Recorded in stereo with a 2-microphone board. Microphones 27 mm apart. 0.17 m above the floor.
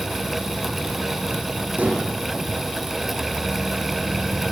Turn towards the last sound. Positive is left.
turn(degrees=-75)  # may be behind; listen again after turning